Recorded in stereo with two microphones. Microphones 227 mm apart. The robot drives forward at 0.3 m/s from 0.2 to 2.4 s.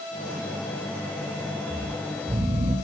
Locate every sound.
1.7 s snoring: 25° right (ahead or behind), 8 m